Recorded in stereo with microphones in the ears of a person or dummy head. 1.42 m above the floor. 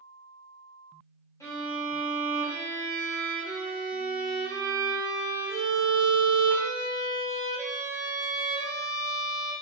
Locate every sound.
1.4 s a violin: 20° left (ahead or behind), 1.1 m